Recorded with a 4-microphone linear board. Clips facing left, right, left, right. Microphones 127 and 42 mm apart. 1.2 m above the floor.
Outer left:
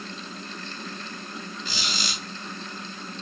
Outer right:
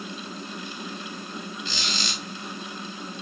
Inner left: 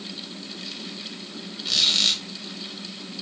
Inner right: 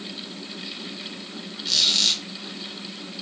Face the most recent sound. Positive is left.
turn(degrees=10)  # may be behind; listen again after turning